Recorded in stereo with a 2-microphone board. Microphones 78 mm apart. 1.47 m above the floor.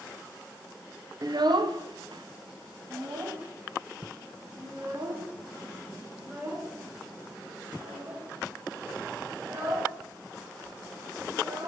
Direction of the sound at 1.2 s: 50° right (ahead or behind).